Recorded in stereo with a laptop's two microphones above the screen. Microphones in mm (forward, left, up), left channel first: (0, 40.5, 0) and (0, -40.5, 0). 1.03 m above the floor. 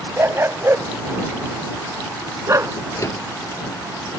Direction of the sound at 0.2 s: 30° right (ahead or behind).